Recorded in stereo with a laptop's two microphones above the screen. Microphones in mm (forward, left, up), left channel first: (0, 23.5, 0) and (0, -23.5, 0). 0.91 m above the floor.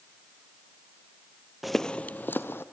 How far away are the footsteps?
About 0.9 m.